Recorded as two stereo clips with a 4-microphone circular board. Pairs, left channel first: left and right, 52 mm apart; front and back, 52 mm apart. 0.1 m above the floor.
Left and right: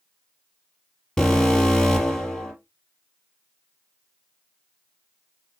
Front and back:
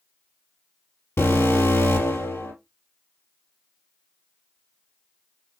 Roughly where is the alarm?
Ahead.